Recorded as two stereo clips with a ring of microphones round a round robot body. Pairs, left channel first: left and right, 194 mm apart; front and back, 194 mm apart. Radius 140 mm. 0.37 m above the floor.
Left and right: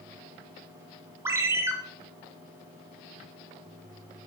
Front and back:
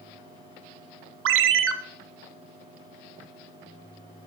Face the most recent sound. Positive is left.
turn(degrees=-170)